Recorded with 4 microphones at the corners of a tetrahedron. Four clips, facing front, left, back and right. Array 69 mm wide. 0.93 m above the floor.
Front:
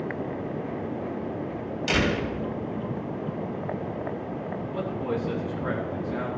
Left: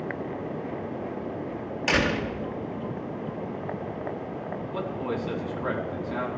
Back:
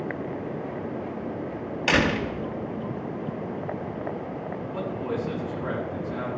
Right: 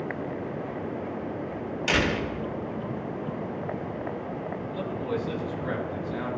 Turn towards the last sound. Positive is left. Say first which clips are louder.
# even, even
turn(degrees=105)